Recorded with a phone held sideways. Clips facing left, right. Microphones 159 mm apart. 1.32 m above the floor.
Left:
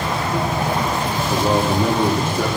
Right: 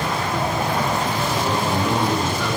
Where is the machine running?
10° left (ahead or behind), 4.5 m.